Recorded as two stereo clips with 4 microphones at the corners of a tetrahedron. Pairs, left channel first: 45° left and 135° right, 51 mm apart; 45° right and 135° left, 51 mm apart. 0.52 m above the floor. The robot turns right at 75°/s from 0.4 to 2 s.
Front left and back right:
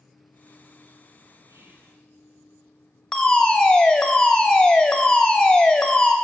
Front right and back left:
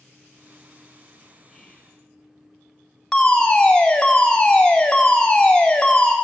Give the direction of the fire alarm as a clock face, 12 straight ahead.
12 o'clock.